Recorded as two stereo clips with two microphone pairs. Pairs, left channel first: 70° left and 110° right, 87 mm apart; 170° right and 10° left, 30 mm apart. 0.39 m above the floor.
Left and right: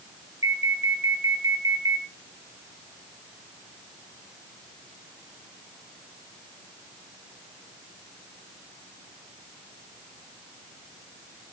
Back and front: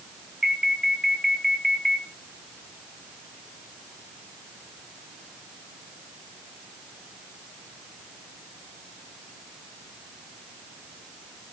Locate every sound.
0.4 s an alarm: 70° right, 3 m